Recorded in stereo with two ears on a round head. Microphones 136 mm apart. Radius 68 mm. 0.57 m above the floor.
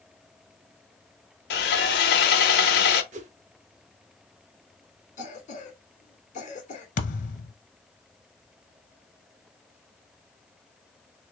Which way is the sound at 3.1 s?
50° right (ahead or behind).